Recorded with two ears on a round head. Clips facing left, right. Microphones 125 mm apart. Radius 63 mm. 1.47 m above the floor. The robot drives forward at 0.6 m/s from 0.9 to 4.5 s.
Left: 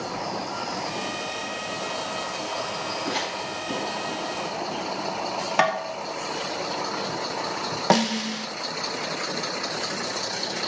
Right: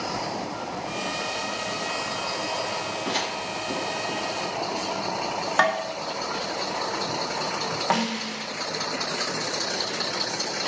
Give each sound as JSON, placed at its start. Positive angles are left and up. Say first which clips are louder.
{"t": 3.0, "sound": "a crack", "louder": "even", "side_deg": -25, "distance_m": 6.5}
{"t": 5.6, "sound": "tapping", "louder": "even", "side_deg": 20, "distance_m": 2.5}
{"t": 7.9, "sound": "a snare drum", "louder": "left 6 dB", "side_deg": 45, "distance_m": 1.1}